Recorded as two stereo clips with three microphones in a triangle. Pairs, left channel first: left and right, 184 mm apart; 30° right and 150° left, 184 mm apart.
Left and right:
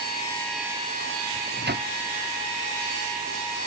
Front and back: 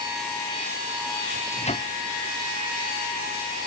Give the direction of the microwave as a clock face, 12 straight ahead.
3 o'clock.